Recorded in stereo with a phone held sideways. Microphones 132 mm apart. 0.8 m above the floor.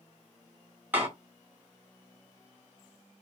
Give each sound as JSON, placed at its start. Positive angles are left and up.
{"t": 0.9, "sound": "a door slam", "side_deg": -15, "distance_m": 1.5}